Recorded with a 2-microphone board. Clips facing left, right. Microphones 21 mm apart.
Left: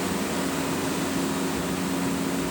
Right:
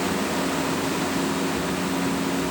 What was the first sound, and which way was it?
Only background noise.